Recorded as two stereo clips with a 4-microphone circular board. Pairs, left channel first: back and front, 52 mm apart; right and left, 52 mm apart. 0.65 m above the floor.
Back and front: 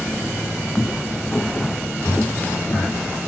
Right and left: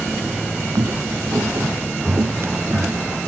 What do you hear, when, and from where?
0.8 s footsteps: 105° left; by 3.1 s 130° left